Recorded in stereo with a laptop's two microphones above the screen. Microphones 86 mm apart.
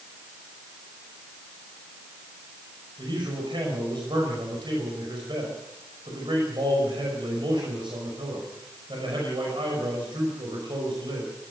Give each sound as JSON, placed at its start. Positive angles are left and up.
{"t": 3.0, "sound": "a man speaking", "side_deg": -65, "distance_m": 5.5}